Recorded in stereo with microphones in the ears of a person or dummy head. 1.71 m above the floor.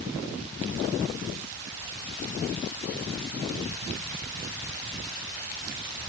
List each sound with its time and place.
Only background noise.